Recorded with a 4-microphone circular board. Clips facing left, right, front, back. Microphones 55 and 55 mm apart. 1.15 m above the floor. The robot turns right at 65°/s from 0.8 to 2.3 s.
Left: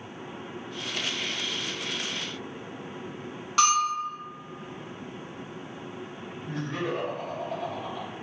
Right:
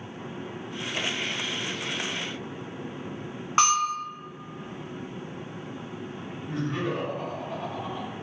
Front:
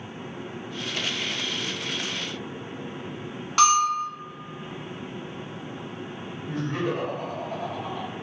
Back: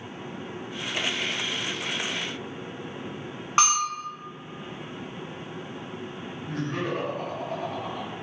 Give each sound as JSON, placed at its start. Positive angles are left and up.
{"t": 3.6, "sound": "a bell", "azimuth_deg": -130, "distance_m": 0.8}
{"t": 6.4, "sound": "laughter", "azimuth_deg": -160, "distance_m": 1.8}